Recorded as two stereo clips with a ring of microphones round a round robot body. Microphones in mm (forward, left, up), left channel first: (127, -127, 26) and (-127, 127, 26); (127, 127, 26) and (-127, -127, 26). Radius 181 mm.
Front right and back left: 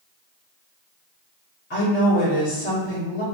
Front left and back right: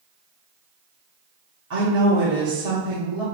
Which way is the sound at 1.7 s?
100° right.